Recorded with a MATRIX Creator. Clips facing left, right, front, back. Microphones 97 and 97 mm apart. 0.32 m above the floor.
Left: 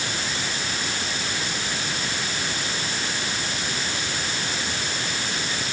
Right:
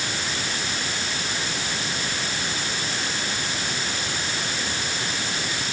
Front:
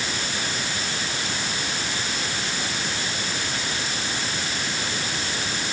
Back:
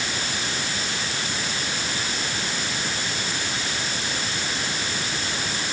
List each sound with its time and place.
Only background noise.